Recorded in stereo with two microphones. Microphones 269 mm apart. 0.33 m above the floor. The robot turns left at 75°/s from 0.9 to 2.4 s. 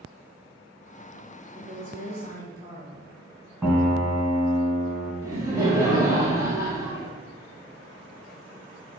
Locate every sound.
1.5 s a woman speaking: 95° right, 1.8 m; by 3.1 s 160° right, 1.8 m
3.6 s a piano: 10° right (ahead or behind), 0.8 m
5.2 s laughter: 10° right (ahead or behind), 1.0 m